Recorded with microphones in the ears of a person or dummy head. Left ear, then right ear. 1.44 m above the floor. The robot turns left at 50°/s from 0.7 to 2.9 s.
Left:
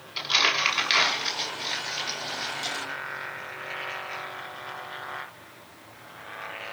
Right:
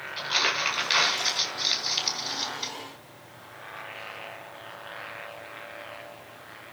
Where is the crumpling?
10° left (ahead or behind), 7 m; by 2.7 s 85° right, 7 m.